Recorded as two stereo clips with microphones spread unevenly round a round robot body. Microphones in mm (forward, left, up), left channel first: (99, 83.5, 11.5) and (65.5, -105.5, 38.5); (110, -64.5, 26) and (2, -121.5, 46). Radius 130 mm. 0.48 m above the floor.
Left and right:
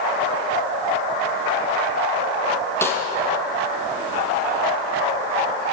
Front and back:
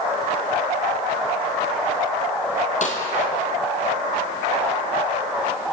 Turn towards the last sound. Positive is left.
turn(degrees=0)